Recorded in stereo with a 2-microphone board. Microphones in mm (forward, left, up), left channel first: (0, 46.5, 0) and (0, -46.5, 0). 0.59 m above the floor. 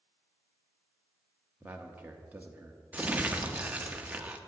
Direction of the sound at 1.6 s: 20° right (ahead or behind).